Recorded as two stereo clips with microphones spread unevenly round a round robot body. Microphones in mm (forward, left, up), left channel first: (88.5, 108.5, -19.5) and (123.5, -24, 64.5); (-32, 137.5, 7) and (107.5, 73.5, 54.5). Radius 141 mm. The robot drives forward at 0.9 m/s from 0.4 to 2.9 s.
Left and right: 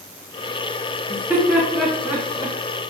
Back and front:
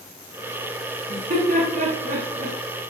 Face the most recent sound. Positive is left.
turn(degrees=20)